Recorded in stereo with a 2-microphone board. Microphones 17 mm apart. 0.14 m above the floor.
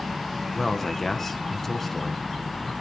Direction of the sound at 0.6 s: 15° left (ahead or behind).